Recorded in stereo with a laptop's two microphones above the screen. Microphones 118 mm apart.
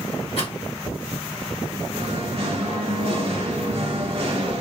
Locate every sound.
0.4 s a rattle: 50° left (ahead or behind), 1.4 m
1.9 s singing: 50° right (ahead or behind), 0.6 m